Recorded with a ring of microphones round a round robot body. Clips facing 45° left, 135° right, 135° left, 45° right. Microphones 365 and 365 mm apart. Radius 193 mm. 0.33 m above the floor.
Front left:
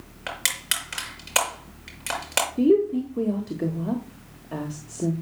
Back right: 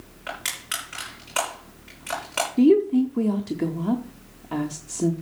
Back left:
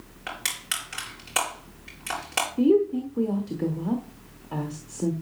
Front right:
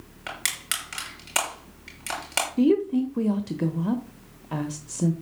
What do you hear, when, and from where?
0.3 s crushing: 20° left, 6 m
2.6 s a woman speaking: 75° right, 1.2 m